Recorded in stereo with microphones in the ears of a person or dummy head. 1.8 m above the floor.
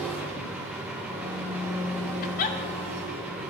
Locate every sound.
0.0 s an engine running: 5° right (ahead or behind), 1.0 m
2.2 s a giggle: 45° left (ahead or behind), 0.6 m